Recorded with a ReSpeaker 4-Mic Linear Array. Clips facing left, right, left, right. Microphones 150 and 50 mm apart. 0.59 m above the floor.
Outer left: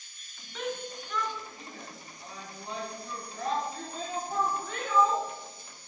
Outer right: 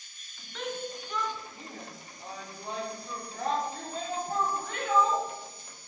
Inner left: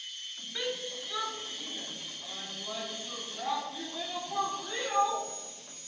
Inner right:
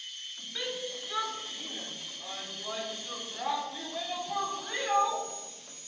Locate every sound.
0.6 s a shout: 5° left (ahead or behind), 0.9 m; by 5.2 s 75° right (ahead or behind), 3.5 m